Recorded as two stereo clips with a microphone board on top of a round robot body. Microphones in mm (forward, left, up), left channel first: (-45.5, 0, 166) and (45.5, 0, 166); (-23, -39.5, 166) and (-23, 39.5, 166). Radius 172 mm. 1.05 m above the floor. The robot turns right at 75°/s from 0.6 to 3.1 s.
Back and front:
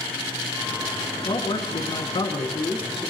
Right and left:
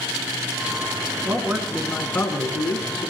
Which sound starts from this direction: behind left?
A man speaking, at 1.2 s.